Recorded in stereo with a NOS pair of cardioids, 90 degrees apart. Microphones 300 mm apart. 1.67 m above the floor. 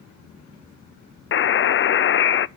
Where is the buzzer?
40° left, 0.6 m.